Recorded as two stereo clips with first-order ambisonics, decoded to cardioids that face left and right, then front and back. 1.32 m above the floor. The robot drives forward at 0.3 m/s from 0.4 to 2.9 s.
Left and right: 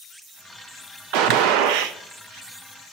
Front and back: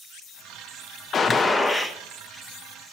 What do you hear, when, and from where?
1.1 s a gunshot: 65° right, 0.5 m; by 2.0 s 95° right, 0.5 m